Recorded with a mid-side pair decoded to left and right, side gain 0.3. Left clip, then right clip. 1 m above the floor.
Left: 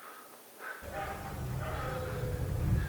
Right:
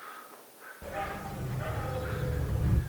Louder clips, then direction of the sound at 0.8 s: Right 5 dB; 70° right.